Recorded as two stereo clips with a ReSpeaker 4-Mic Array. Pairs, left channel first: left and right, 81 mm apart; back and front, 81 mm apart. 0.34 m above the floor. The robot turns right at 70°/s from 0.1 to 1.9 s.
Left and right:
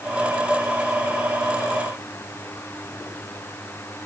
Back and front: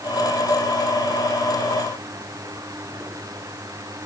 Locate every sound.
Only background noise.